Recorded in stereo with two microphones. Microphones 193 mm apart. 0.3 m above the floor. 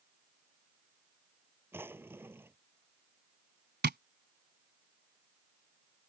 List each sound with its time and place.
1.7 s a drawer: 10° right (ahead or behind)
3.8 s tapping: 60° right (ahead or behind)